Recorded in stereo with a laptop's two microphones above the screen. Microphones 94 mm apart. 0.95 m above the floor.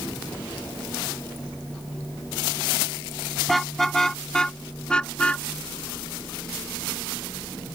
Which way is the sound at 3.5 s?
Centre (ahead or behind).